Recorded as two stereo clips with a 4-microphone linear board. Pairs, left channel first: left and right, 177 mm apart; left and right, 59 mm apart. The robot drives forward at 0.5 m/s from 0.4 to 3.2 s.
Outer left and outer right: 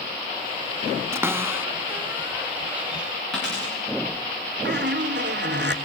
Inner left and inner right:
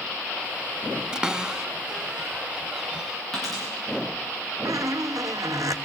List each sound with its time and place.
1.1 s a cupboard door: 15° right (ahead or behind), 0.5 m; by 3.2 s 5° right (ahead or behind), 1.3 m
3.3 s a dropped coin: 5° left (ahead or behind), 8.5 m
4.7 s a squeak: 70° right (ahead or behind), 1.3 m